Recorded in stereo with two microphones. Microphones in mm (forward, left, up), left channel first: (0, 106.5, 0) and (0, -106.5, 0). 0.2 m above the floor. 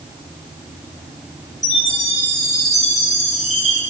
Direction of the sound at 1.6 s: 35° left (ahead or behind).